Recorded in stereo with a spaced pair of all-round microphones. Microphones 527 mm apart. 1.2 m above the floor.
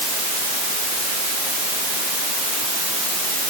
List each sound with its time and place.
Only background noise.